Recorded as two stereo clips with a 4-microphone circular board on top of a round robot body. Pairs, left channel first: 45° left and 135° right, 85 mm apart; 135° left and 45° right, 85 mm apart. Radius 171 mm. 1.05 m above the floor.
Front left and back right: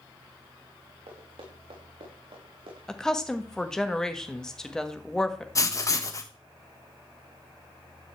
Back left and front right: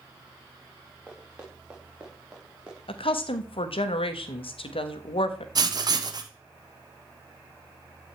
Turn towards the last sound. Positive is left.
turn(degrees=-5)